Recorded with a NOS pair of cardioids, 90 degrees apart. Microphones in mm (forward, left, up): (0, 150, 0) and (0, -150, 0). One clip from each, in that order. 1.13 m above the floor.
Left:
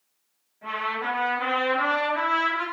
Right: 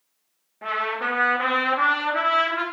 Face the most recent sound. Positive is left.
turn(degrees=-65)